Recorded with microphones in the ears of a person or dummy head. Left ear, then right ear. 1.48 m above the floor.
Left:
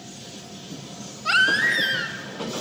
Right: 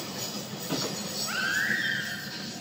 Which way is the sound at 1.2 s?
65° left (ahead or behind).